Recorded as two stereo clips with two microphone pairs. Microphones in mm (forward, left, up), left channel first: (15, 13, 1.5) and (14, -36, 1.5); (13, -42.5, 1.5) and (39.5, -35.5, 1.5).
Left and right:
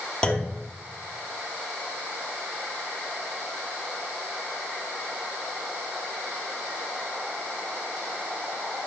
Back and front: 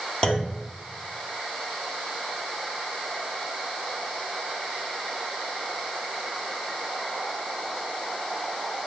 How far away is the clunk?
About 1.0 m.